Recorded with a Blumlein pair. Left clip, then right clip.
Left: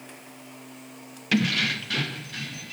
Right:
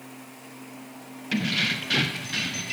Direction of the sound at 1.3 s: 15° left.